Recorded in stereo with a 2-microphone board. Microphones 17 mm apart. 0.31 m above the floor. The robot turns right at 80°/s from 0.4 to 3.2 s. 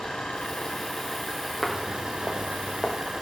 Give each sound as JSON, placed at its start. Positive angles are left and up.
{"t": 0.0, "sound": "an engine running", "azimuth_deg": 100, "distance_m": 8.5}
{"t": 1.6, "sound": "footsteps", "side_deg": 10, "distance_m": 4.0}